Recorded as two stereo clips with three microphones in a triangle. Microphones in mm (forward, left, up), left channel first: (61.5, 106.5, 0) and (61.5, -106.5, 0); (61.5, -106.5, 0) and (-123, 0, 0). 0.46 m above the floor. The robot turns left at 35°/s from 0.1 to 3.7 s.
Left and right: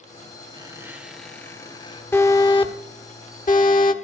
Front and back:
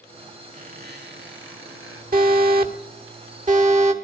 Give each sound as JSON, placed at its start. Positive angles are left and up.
{"t": 0.5, "sound": "a squeak", "azimuth_deg": -155, "distance_m": 3.5}
{"t": 2.1, "sound": "an alarm", "azimuth_deg": 165, "distance_m": 1.8}